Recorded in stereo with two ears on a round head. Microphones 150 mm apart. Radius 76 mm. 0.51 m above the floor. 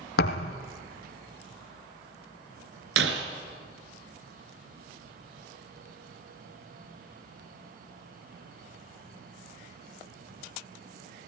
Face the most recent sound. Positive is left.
turn(degrees=-85)